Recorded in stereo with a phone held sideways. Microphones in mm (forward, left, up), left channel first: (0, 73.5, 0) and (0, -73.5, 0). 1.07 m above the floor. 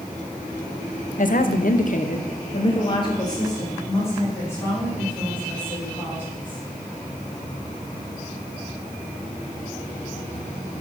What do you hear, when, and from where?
1.2 s a woman speaking: 60° left (ahead or behind), 0.9 m; by 6.6 s 10° left (ahead or behind), 5 m